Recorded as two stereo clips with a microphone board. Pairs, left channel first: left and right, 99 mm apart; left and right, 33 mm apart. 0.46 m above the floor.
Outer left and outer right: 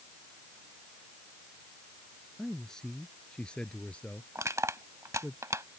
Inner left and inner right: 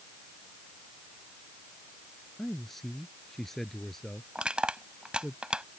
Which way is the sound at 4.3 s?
30° right (ahead or behind).